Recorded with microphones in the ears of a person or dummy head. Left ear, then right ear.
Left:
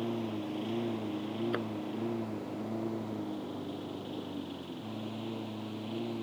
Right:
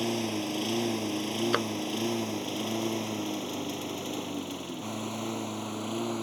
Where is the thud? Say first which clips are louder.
Right 9 dB; 50° right (ahead or behind).